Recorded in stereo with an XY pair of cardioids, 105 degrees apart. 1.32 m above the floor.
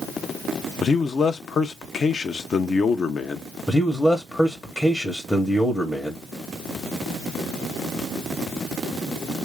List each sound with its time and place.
0.8 s a man speaking: 45° left, 0.8 m
3.7 s a man speaking: 15° left, 1.1 m